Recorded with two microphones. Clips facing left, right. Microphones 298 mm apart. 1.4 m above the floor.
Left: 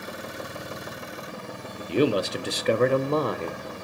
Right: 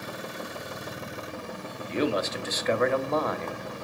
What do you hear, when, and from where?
1.9 s a man speaking: 40° left (ahead or behind), 0.7 m